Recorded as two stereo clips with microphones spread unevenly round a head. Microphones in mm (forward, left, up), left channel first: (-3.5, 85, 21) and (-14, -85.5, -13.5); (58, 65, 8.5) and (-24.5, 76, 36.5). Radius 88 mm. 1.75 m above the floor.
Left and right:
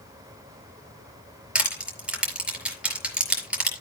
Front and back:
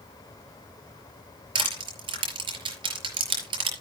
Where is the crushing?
Straight behind, 5 m.